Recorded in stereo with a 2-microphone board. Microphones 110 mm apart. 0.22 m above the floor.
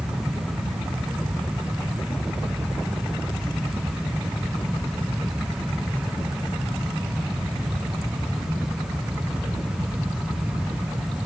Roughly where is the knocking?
I don't hear knocking.